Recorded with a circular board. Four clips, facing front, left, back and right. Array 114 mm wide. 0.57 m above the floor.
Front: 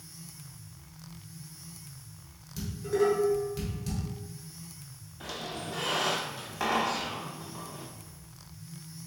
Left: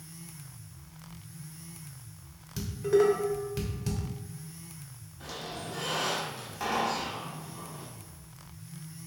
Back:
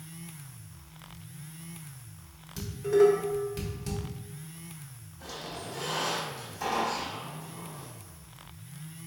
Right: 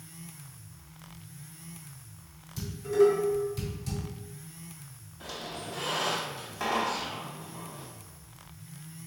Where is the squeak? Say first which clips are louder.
Even, front 2 dB; 10° right, 0.9 m.